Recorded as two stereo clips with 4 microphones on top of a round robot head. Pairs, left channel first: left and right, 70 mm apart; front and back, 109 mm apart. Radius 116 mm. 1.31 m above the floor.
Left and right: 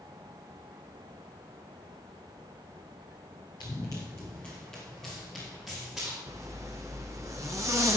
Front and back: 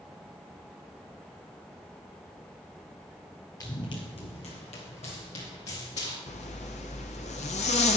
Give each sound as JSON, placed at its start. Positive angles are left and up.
{"t": 3.6, "sound": "running footsteps", "azimuth_deg": 40, "distance_m": 1.6}
{"t": 6.3, "sound": "a zipper", "azimuth_deg": -25, "distance_m": 0.5}